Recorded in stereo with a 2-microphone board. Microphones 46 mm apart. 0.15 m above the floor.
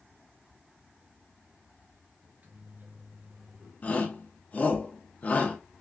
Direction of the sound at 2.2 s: 40° right (ahead or behind).